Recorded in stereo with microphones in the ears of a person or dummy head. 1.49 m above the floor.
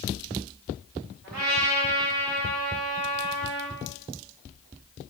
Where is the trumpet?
55° right (ahead or behind), 2.5 m.